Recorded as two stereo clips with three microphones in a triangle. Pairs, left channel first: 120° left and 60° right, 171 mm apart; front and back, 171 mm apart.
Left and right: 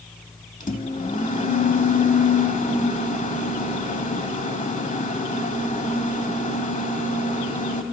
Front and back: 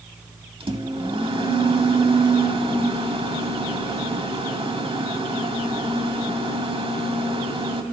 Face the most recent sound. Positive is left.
turn(degrees=135)